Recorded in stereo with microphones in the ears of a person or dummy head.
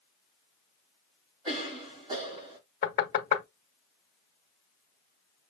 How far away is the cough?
About 4 m.